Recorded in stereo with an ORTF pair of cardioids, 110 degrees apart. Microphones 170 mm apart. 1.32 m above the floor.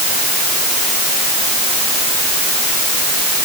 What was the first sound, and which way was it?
Only background noise.